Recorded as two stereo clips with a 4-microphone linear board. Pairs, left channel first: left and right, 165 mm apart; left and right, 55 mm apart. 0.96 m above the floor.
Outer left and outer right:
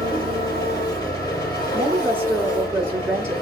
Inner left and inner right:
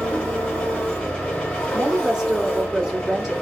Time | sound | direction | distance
0.0 | an engine running | 25° left (ahead or behind) | 3.5 m
1.7 | a woman speaking | 15° right (ahead or behind) | 2 m